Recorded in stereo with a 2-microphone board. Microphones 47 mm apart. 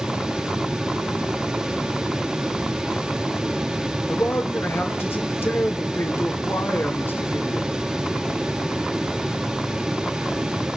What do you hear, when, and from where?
4.1 s a man speaking: 50° left (ahead or behind), 2.5 m